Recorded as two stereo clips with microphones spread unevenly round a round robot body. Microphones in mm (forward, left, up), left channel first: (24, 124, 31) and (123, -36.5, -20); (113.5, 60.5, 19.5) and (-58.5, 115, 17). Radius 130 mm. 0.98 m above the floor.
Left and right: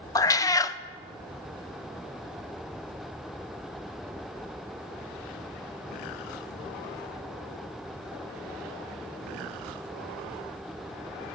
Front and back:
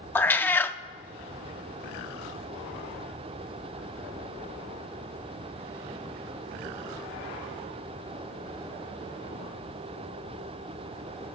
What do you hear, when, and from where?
0.1 s a cat meowing: 60° left, 0.5 m